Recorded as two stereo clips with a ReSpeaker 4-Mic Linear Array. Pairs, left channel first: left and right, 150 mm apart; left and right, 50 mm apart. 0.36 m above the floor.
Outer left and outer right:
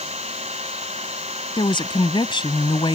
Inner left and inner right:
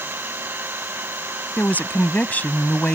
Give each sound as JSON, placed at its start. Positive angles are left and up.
{"t": 0.0, "sound": "an engine running", "side_deg": -45}
{"t": 1.6, "sound": "a woman speaking", "side_deg": 35}